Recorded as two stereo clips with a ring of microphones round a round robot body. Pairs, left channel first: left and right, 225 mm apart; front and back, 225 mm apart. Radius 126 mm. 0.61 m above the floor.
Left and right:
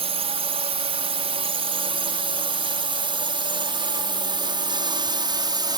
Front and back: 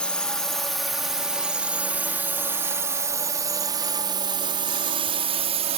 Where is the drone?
80° right; by 5.8 s 145° right.